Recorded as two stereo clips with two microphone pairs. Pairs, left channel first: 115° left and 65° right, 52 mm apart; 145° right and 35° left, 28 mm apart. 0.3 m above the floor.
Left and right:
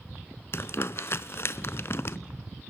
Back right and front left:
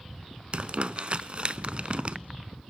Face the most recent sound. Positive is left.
turn(degrees=80)